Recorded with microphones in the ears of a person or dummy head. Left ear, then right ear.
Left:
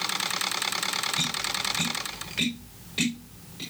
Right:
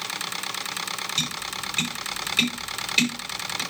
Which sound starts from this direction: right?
Tapping, at 1.2 s.